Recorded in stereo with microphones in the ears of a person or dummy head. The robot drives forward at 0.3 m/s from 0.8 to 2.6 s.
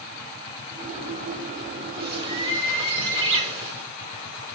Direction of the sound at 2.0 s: 30° right (ahead or behind).